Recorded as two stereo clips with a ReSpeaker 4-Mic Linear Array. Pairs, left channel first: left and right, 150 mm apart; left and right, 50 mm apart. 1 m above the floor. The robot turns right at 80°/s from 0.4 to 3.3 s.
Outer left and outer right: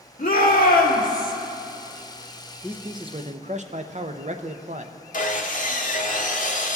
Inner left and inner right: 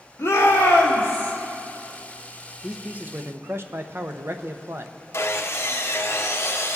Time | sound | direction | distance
0.2 | a shout | 75° left | 1.8 m
2.6 | a man speaking | 175° right | 0.6 m
5.1 | sawing | 60° left (ahead or behind) | 0.9 m